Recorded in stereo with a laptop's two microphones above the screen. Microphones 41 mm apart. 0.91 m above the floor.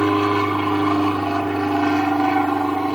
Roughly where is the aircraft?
Centre.